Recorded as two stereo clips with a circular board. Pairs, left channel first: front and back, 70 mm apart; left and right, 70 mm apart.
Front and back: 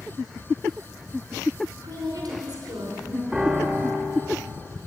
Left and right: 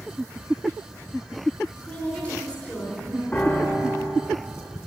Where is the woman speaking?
165° left, 4 m.